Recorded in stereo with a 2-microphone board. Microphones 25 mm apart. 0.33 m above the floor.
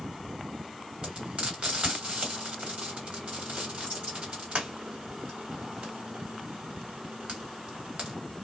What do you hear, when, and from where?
1.0 s frying: 45° right (ahead or behind), 2 m